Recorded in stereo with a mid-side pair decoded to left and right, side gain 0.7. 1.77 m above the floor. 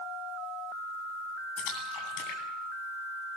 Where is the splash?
65° left, 10 m.